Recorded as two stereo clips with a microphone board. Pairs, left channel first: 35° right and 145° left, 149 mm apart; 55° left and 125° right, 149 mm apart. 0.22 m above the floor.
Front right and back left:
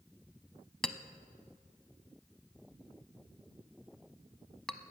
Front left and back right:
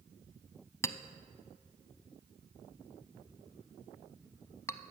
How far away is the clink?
About 0.5 m.